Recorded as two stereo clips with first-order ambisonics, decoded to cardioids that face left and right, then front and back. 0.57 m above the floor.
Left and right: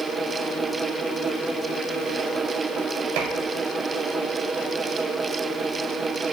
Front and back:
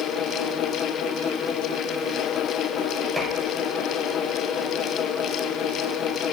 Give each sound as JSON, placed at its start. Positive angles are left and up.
{"t": 3.2, "sound": "dishes clattering", "azimuth_deg": -100, "distance_m": 1.6}